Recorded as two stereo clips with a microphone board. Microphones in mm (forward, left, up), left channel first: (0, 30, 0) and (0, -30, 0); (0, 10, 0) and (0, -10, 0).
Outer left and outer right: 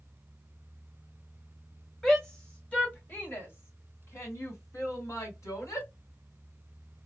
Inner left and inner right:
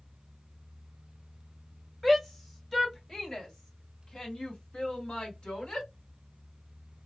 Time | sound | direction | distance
2.0 | a shout | 5° left (ahead or behind) | 1.6 m